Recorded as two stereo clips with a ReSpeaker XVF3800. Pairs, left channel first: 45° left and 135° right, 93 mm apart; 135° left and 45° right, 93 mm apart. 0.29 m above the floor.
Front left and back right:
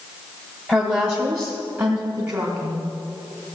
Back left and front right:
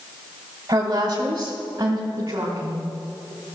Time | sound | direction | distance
0.7 | a woman speaking | 60° right | 1.4 m